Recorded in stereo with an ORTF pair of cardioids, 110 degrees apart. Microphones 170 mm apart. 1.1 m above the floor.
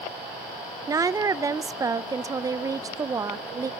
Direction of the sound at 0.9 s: 20° right.